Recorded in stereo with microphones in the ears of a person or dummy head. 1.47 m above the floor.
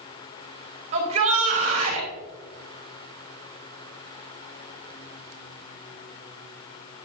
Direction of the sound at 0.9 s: 40° right (ahead or behind).